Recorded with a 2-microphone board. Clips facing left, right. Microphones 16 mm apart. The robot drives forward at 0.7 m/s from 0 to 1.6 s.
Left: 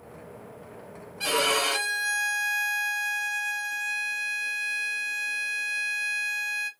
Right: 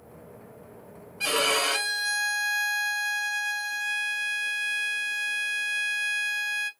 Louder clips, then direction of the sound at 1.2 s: Even; centre (ahead or behind).